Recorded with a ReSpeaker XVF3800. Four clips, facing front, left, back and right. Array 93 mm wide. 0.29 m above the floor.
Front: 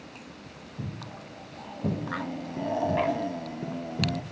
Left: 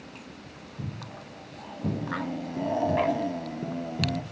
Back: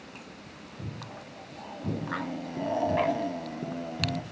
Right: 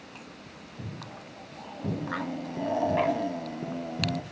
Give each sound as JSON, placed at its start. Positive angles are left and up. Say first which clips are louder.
{"t": 0.8, "sound": "footsteps", "louder": "left 2 dB, front 2 dB", "azimuth_deg": 5, "distance_m": 5.0}